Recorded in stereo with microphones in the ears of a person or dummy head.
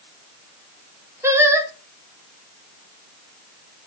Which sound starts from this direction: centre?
Singing, at 1.2 s.